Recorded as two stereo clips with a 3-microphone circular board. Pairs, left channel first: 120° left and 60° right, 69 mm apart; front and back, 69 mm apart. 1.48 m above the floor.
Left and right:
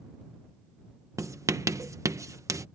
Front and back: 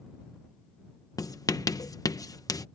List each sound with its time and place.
1.2 s writing: 25° right